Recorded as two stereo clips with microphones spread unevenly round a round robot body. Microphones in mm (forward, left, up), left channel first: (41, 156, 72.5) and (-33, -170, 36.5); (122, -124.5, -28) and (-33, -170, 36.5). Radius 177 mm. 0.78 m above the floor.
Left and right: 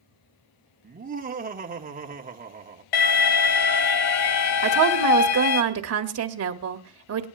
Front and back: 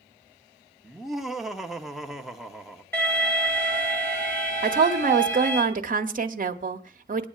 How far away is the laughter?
About 1.2 m.